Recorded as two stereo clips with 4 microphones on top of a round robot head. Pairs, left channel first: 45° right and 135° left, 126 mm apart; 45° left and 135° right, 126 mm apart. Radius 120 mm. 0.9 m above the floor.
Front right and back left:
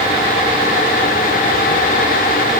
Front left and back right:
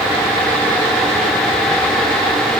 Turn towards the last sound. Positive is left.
No sound to turn to.